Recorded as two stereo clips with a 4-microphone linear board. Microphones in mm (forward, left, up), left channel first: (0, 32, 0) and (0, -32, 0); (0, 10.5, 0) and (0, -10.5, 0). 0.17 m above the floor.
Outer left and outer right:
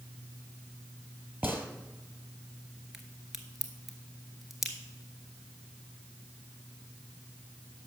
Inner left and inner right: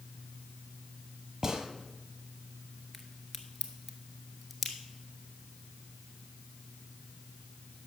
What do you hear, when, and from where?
1.4 s a gunshot: 35° right (ahead or behind), 1.2 m
2.9 s a crack: 5° right (ahead or behind), 1.2 m